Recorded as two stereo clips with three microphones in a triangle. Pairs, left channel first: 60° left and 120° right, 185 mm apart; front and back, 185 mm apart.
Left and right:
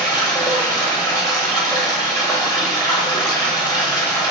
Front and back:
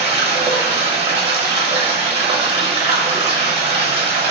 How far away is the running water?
About 1.0 m.